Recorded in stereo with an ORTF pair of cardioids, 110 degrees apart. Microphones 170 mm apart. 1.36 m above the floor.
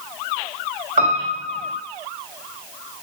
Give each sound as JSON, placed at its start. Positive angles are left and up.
{"t": 1.0, "sound": "a piano", "azimuth_deg": -40, "distance_m": 2.0}